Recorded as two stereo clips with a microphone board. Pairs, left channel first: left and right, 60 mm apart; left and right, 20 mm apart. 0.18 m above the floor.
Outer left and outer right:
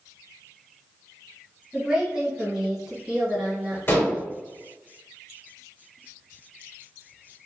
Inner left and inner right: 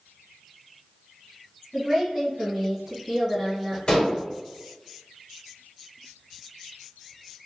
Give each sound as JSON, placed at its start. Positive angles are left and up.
{"t": 1.7, "sound": "a woman speaking", "side_deg": -10, "distance_m": 1.3}
{"t": 3.9, "sound": "dishes clattering", "side_deg": 35, "distance_m": 1.8}